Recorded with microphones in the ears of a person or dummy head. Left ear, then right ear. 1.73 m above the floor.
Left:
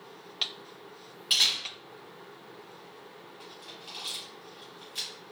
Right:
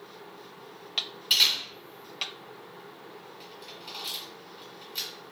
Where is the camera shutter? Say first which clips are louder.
Right 2 dB; centre (ahead or behind), 1.5 m.